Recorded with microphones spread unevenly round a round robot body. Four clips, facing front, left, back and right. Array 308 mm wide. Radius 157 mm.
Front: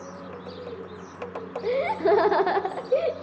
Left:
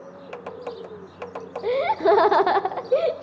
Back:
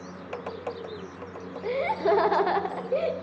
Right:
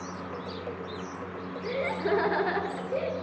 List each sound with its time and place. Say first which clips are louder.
1.6 s laughter: left 10 dB, front 2 dB; 75° left, 0.7 m